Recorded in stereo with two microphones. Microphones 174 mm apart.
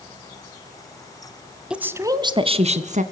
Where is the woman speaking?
5° right (ahead or behind), 1.1 m; by 3.0 s 50° right (ahead or behind), 1.6 m.